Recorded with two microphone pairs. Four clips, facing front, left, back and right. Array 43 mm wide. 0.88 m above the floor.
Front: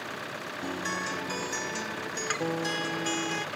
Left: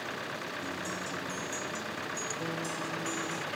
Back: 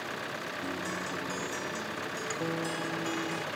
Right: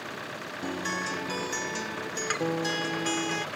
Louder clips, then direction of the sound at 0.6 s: Right 5 dB, front 6 dB; 60° right.